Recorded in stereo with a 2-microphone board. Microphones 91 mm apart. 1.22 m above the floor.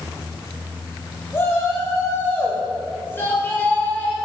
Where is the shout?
30° left (ahead or behind), 6 m; by 4.2 s 20° left (ahead or behind), 4.5 m.